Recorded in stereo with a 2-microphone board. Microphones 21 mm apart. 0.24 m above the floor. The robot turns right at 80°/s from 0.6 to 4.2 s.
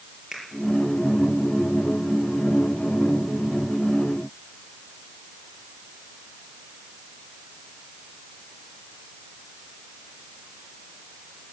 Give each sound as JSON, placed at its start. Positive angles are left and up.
{"t": 0.3, "sound": "a finger snap", "side_deg": -20, "distance_m": 5.5}